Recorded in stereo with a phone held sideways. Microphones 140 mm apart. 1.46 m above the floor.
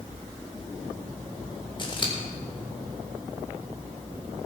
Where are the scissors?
35° left (ahead or behind), 2.5 m.